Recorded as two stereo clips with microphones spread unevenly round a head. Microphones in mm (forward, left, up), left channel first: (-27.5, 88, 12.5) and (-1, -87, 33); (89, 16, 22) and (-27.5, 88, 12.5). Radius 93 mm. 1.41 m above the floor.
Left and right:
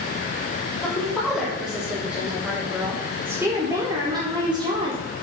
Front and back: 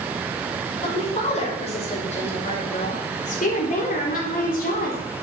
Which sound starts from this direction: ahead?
A woman speaking, at 0.8 s.